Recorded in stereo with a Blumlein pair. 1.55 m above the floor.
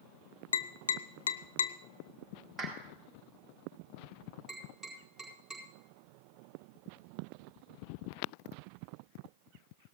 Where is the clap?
5° right, 4.5 m.